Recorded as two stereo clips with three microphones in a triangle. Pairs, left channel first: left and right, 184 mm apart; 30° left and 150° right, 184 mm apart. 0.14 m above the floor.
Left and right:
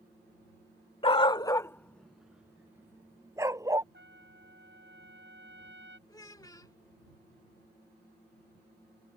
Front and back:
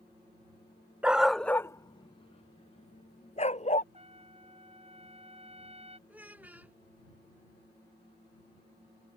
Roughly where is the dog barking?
Behind left.